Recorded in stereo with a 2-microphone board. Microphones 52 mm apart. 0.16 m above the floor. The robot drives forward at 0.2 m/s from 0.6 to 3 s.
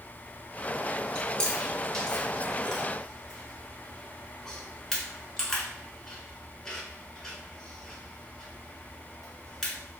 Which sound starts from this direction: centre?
Chewing, at 1.1 s.